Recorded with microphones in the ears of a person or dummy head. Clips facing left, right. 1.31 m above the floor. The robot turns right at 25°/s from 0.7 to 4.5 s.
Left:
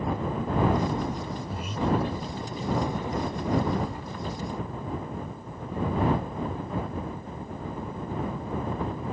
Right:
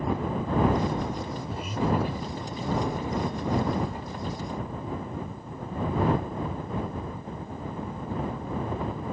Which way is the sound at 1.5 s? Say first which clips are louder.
Even; 5° left (ahead or behind).